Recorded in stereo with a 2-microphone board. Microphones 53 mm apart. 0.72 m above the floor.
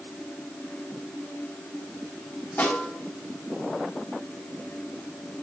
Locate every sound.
2.6 s a snare drum: 40° left (ahead or behind), 4 m